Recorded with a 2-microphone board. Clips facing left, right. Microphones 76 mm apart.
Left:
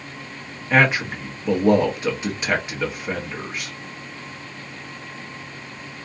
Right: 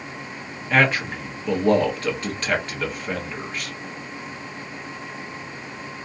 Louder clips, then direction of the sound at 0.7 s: Left 1 dB; 10° left (ahead or behind).